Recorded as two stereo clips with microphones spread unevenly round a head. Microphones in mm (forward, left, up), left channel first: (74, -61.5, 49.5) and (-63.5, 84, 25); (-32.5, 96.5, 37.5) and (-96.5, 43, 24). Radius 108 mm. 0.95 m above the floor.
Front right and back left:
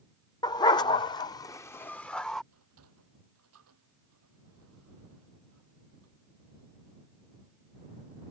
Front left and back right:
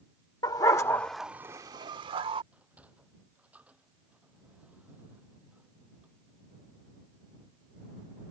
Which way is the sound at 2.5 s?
145° left.